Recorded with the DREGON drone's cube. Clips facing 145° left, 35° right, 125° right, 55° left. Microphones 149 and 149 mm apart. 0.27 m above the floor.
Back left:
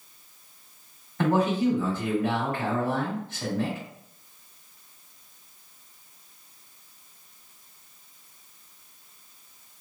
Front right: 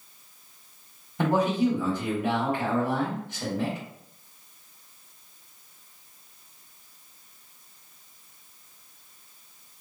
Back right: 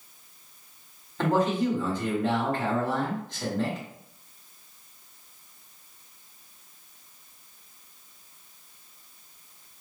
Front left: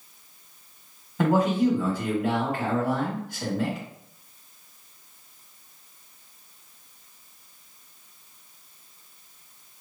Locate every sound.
1.2 s a man speaking: straight ahead, 1.1 m